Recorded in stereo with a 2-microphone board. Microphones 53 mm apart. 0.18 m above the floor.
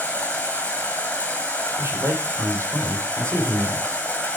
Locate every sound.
0.0 s running water: 25° left (ahead or behind), 3 m
1.8 s a man speaking: 65° right (ahead or behind), 5.5 m